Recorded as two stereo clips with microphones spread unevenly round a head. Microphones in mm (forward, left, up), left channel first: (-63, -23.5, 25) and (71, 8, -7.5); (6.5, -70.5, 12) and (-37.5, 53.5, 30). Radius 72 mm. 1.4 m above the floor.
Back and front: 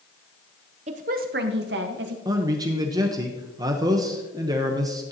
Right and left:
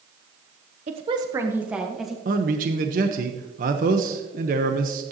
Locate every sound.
0.9 s a woman speaking: 65° left, 0.8 m; by 2.1 s 20° left, 1.7 m
2.2 s a man speaking: 75° left, 1.0 m